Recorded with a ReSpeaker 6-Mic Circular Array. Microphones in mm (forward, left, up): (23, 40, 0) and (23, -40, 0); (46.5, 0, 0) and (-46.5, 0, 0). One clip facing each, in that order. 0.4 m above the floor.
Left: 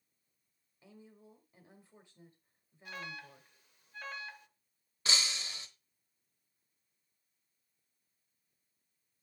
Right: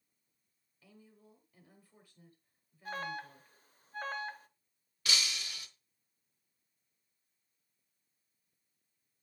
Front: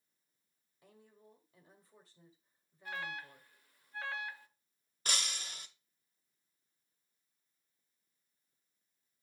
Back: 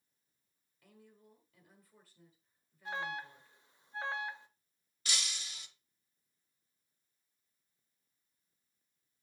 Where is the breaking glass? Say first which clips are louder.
Even, front 2 dB; 35° left, 1.0 m.